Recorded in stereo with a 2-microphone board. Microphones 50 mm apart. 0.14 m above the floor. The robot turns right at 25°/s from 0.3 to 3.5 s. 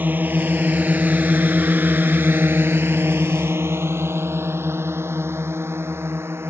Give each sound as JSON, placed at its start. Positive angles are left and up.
{"t": 0.0, "sound": "a drone", "side_deg": -45}